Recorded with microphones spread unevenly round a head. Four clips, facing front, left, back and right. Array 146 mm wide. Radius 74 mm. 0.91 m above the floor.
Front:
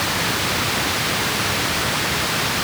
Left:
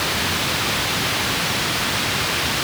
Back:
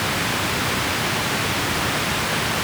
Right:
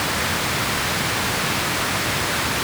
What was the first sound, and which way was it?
Only background noise.